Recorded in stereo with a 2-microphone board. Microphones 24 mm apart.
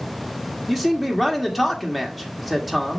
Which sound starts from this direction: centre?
A man speaking, at 0.7 s.